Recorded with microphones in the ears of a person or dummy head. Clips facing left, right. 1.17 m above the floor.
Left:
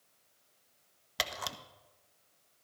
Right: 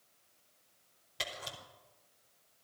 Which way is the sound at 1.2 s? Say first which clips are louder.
Left 4 dB; 75° left (ahead or behind).